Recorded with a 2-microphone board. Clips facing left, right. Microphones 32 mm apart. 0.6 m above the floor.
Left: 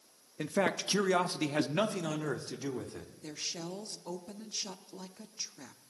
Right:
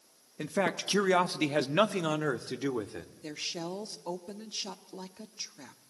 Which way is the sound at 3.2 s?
25° right (ahead or behind).